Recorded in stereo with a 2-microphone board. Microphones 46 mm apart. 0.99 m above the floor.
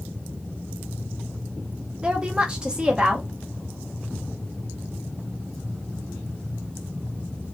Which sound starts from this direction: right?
A woman speaking, at 2.0 s.